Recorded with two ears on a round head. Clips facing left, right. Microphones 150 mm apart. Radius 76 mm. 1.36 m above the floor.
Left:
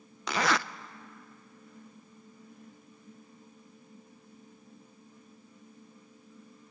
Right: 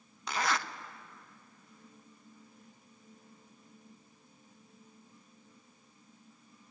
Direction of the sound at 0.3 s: 60° left (ahead or behind).